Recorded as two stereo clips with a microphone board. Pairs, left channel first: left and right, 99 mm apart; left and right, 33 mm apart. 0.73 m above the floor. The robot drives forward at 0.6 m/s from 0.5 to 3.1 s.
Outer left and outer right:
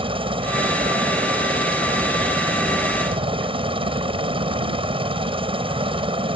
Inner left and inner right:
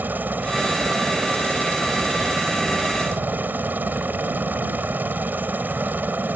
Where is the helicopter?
70° right (ahead or behind).